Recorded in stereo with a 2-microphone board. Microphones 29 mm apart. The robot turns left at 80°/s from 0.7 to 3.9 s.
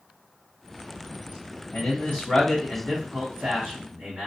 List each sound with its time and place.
1.7 s a man speaking: 75° left (ahead or behind), 1.1 m; by 4.3 s 75° right (ahead or behind), 1.1 m